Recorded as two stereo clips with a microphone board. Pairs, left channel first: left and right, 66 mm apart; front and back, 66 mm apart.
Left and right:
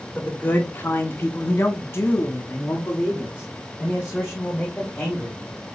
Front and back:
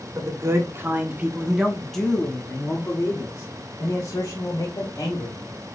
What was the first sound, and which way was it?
A man speaking, 150° left.